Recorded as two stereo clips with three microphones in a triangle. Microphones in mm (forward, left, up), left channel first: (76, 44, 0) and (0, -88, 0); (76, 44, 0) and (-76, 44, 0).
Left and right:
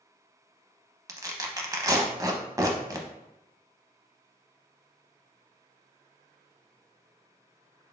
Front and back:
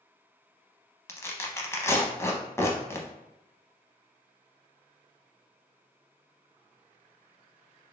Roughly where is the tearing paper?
Ahead right.